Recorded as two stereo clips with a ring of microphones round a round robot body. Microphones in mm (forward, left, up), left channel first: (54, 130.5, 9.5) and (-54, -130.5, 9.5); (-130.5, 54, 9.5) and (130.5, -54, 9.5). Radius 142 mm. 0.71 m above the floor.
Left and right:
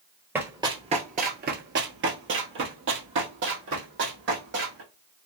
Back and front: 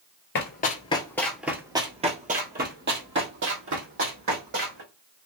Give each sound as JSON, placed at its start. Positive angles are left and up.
{"t": 0.3, "sound": "running footsteps", "azimuth_deg": 170, "distance_m": 0.8}